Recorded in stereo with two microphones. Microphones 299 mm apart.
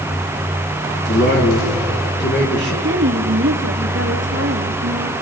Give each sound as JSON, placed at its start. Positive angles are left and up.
{"t": 1.1, "sound": "a man speaking", "side_deg": 35, "distance_m": 5.5}
{"t": 2.8, "sound": "a woman speaking", "side_deg": -40, "distance_m": 2.5}